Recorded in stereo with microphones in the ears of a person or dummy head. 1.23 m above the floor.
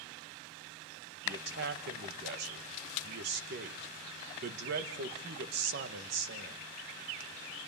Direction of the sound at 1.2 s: 55° right (ahead or behind).